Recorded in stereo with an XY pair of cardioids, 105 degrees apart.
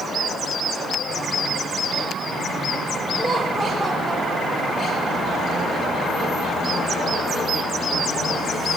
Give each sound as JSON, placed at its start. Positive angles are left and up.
{"t": 3.2, "sound": "laughter", "azimuth_deg": 0, "distance_m": 6.5}